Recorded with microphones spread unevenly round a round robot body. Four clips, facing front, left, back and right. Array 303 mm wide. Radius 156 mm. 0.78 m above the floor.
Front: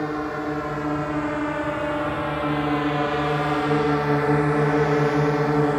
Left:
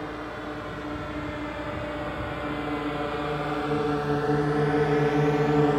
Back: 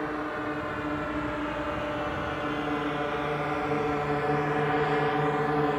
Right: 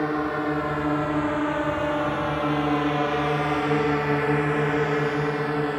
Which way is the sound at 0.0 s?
55° right.